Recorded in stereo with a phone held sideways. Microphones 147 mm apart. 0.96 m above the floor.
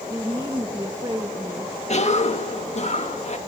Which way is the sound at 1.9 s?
50° left (ahead or behind).